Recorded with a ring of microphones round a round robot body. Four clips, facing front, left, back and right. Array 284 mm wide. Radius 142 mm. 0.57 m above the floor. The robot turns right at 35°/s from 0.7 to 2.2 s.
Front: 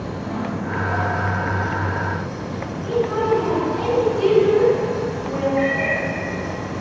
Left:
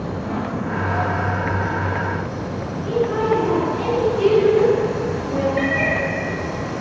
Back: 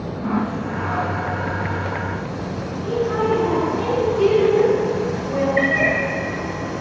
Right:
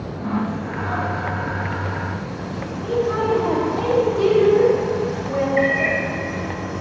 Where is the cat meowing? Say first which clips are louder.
Right 1 dB, back 1 dB; 160° left, 1.1 m.